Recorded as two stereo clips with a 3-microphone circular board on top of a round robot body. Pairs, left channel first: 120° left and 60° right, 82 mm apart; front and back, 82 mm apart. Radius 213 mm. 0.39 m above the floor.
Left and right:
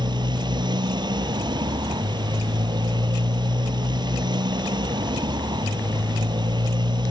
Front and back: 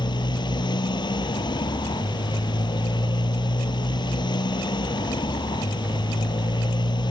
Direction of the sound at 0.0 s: 30° right.